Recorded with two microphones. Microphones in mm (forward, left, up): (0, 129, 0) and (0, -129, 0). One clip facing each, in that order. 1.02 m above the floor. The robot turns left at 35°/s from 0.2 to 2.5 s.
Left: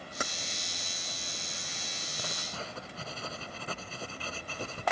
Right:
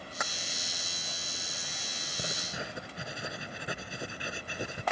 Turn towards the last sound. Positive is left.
turn(degrees=-15)  # may be behind; listen again after turning